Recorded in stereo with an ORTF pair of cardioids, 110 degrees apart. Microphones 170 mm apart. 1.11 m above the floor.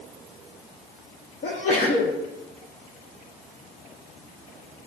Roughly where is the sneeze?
Ahead left.